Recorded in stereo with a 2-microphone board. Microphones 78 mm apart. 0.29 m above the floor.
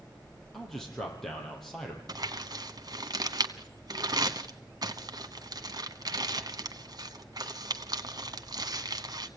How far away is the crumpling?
About 1.2 m.